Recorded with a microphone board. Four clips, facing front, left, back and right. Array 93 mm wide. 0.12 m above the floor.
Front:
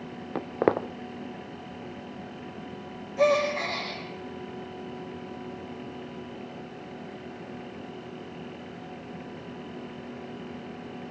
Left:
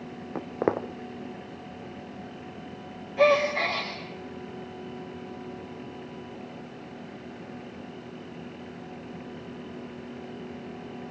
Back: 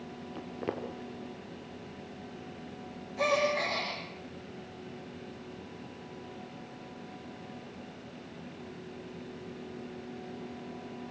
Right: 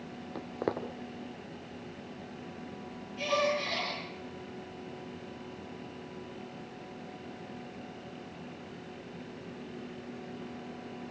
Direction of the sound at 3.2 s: 70° left.